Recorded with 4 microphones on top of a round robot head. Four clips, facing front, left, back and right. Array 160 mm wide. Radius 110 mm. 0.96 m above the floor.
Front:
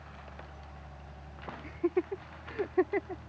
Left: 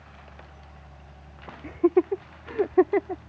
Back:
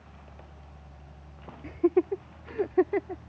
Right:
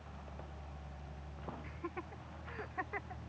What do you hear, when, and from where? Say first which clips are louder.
1.6 s laughter: left 29 dB, back 7 dB; 115° left; by 3.2 s 105° left